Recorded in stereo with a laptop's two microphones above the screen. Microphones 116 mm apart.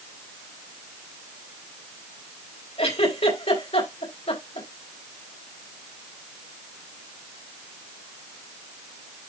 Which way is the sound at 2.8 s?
65° left (ahead or behind).